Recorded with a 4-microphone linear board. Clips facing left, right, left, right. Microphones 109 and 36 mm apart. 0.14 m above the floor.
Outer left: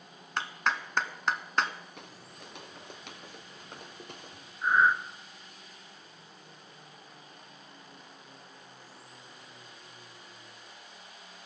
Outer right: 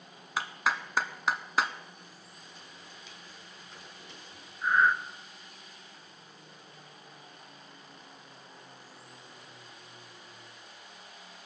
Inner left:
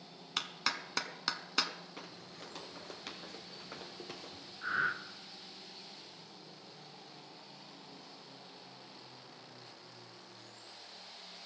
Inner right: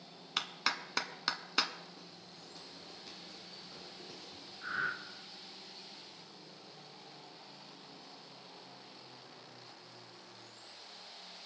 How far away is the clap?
About 0.9 m.